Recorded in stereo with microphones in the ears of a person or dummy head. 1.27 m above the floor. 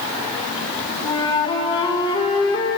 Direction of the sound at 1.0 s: 25° left (ahead or behind).